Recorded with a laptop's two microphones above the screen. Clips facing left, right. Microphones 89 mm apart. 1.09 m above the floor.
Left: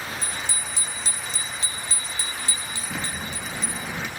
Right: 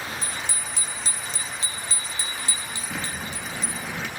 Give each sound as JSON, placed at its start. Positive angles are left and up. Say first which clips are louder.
{"t": 0.2, "sound": "a bicycle bell", "louder": "even", "side_deg": -60, "distance_m": 3.0}
{"t": 2.9, "sound": "a sliding door", "louder": "left 1 dB", "side_deg": 10, "distance_m": 0.7}